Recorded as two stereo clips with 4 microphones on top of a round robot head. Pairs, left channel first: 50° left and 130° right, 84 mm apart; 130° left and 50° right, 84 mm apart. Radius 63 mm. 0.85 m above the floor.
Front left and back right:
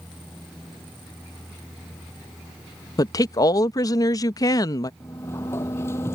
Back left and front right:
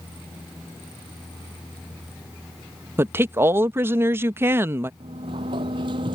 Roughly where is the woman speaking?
Ahead.